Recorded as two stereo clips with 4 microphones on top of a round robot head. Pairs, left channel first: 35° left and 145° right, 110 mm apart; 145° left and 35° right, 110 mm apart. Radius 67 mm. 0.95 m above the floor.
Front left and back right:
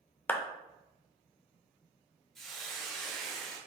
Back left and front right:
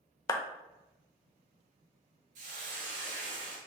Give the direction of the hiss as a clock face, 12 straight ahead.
2 o'clock.